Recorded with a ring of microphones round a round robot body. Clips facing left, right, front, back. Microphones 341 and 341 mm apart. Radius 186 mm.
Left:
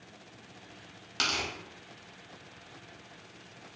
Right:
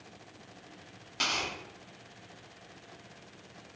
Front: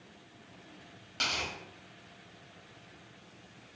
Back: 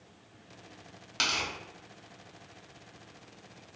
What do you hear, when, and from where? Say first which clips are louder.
1.2 s tearing paper: left 1 dB, back 2 dB; 130° left, 1.0 m